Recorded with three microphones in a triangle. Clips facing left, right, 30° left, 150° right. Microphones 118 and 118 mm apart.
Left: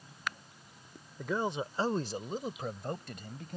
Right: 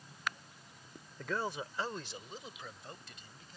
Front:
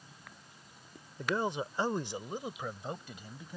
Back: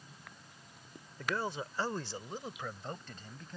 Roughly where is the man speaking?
Ahead left.